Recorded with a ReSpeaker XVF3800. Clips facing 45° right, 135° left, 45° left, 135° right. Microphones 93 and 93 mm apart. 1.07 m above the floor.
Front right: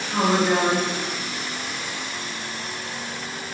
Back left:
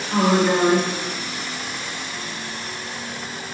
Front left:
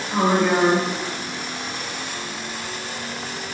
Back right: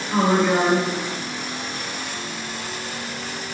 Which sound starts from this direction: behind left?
A woman speaking, at 0.1 s.